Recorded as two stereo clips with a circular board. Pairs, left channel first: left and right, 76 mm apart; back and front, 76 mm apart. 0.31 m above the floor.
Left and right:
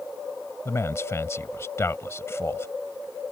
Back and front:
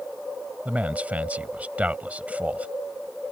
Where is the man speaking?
60° left.